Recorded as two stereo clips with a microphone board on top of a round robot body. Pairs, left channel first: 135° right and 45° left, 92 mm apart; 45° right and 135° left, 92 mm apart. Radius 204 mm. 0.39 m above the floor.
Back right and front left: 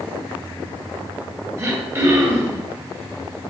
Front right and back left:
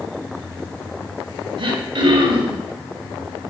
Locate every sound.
1.6 s throat clearing: 105° left, 3 m